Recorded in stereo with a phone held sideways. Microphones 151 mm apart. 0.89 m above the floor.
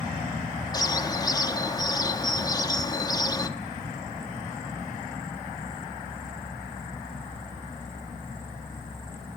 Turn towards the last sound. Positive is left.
turn(degrees=25)  # may be behind; listen again after turning